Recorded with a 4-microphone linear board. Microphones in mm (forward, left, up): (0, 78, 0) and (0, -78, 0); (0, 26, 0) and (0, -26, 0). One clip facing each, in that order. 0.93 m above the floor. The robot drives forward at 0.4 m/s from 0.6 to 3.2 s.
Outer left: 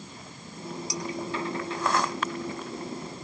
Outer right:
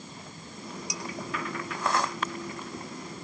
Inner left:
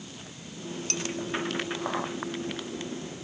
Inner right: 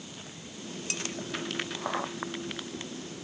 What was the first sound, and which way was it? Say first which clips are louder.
Dishes clattering: outer left 5 dB, inner left 2 dB; 15° right (ahead or behind).